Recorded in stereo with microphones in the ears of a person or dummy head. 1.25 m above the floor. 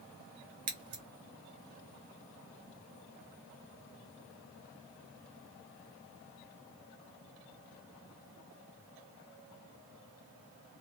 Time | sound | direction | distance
0.7 | scissors | 25° right (ahead or behind) | 0.7 m